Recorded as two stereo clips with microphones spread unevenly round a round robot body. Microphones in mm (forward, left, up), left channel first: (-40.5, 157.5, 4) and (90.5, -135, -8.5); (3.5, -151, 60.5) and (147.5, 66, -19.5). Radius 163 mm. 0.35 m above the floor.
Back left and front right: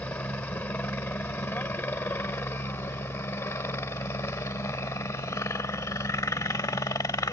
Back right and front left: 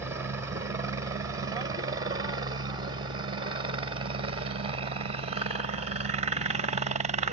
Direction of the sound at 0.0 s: 35° left.